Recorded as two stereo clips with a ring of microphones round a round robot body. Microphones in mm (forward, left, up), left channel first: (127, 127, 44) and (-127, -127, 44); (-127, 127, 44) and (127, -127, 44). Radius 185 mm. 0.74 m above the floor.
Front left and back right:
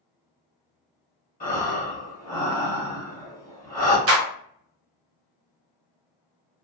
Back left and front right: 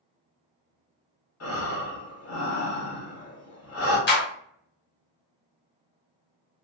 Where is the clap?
175° right, 1.1 m.